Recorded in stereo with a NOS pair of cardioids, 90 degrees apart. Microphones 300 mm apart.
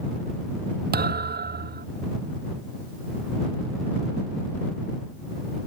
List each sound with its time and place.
0.9 s a thud: 35° right